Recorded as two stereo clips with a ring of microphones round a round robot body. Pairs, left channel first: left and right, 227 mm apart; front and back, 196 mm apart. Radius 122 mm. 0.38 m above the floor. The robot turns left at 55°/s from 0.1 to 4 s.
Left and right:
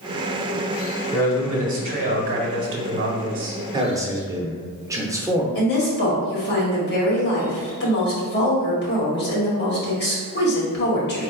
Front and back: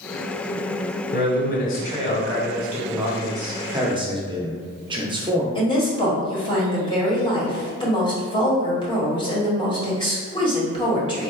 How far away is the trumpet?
I don't hear a trumpet.